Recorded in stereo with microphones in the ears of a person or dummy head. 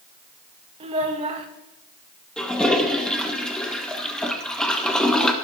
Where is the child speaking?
30° right (ahead or behind), 1.3 m.